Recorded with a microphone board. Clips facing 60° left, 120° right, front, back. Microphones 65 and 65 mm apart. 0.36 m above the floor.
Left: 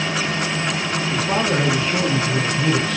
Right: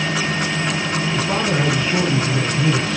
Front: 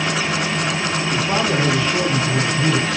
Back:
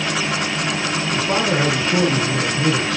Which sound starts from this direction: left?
A man speaking, at 1.1 s.